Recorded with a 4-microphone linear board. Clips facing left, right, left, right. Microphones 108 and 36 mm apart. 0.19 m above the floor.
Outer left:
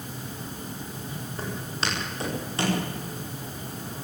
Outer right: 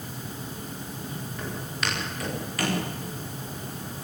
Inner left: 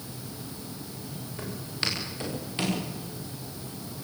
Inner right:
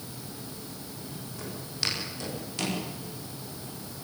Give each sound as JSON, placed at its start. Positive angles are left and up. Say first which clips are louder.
{"t": 1.4, "sound": "footsteps", "louder": "outer left 2 dB, inner left 2 dB", "side_deg": 35, "distance_m": 9.5}